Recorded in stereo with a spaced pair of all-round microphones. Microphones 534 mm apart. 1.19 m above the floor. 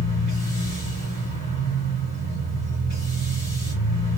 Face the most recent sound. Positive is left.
turn(degrees=20)  # may be behind; listen again after turning